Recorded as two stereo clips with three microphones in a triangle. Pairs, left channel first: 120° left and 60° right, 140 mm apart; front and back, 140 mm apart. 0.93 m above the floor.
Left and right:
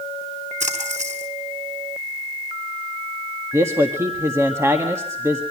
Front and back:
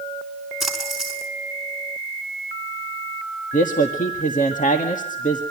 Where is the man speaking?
5° left, 1.7 m.